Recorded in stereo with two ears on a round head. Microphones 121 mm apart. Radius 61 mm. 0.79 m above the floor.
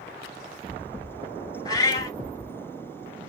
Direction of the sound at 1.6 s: 30° left (ahead or behind).